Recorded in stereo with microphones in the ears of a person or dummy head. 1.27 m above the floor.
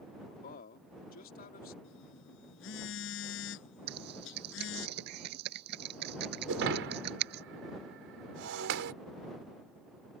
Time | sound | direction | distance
0.3 | a man speaking | 50° left (ahead or behind) | ?
1.8 | a phone buzzing | 75° left (ahead or behind) | ?
3.9 | typing on a keyboard | 65° right (ahead or behind) | ?
6.5 | breaking glass | 70° right (ahead or behind) | ?